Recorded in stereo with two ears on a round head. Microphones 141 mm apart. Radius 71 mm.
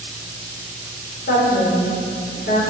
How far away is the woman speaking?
About 4 m.